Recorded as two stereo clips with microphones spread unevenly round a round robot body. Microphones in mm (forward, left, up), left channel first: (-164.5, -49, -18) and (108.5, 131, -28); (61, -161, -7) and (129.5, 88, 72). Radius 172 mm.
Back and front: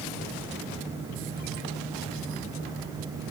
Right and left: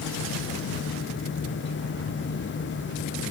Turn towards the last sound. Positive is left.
No sound to turn to.